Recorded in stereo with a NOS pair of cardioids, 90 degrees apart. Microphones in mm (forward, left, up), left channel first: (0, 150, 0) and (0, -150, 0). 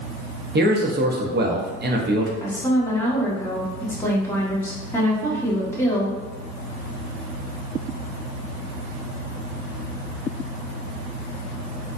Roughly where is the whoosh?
I don't hear a whoosh.